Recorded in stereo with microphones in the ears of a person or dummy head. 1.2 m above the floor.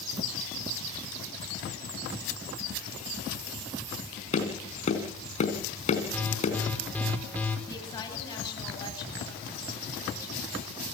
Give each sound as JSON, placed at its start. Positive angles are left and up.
{"t": 4.3, "sound": "tapping", "side_deg": 40, "distance_m": 4.0}
{"t": 6.1, "sound": "an alarm", "side_deg": 5, "distance_m": 4.0}
{"t": 7.7, "sound": "a woman speaking", "side_deg": 20, "distance_m": 10.0}